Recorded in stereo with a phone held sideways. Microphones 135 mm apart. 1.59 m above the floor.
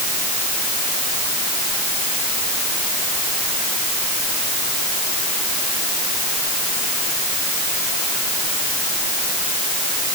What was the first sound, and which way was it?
Only background noise.